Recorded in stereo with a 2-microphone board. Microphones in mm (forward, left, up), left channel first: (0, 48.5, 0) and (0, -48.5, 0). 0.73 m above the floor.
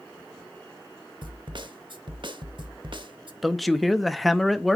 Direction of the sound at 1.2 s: 55° right (ahead or behind).